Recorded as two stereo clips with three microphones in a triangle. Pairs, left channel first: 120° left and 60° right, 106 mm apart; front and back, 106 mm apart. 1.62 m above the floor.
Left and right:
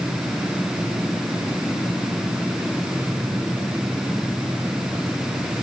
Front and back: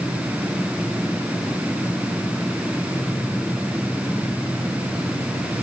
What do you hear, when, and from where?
Only background noise.